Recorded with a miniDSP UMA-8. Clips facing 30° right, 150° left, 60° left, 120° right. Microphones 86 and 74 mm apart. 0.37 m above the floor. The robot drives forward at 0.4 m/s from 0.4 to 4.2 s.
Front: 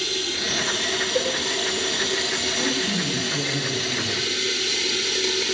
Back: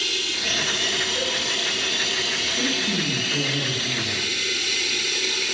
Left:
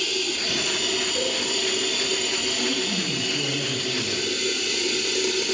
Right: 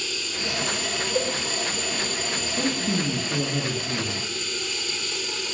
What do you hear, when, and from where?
0.0 s running water: 25° left, 6.5 m; by 5.5 s 35° left, 5 m
1.1 s a cowbell: 70° right, 3.5 m
2.6 s a man speaking: 125° right, 6 m; by 4.3 s 130° right, 6.5 m